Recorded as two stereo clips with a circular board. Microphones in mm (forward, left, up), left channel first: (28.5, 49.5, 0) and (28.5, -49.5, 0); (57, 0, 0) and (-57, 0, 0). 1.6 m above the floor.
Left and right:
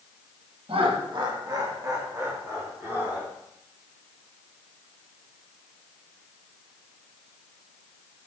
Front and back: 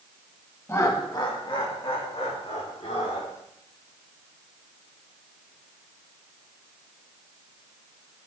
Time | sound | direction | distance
0.7 | laughter | 70° right | 1.7 m